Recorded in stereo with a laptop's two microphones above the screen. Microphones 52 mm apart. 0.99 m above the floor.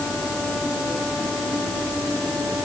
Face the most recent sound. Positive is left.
No sound to turn to.